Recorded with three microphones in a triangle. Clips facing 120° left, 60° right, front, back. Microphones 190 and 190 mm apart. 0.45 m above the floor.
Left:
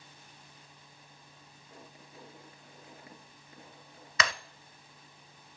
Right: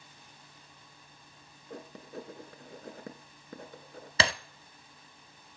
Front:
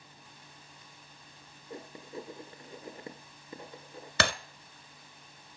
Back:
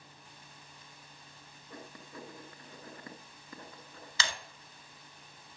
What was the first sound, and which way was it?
Writing, 65° right.